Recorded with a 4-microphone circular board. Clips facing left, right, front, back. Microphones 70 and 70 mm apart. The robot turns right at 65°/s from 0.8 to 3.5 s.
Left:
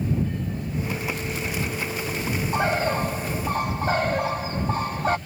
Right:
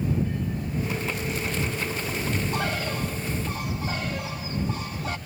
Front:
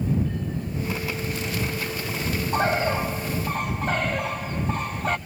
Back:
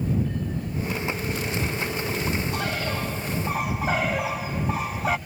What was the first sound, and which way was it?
A bird, 30° left.